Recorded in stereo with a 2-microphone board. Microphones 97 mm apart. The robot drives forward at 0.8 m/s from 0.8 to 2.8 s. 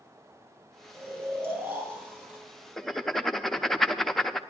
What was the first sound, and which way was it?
Snoring, 30° right (ahead or behind).